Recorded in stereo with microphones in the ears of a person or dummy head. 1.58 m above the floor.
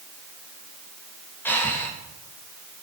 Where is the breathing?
15° left (ahead or behind), 1.4 m.